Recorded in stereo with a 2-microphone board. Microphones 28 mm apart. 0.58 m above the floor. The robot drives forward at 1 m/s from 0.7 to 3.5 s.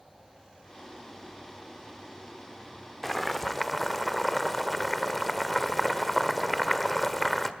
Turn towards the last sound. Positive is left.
turn(degrees=5)  # may be behind; listen again after turning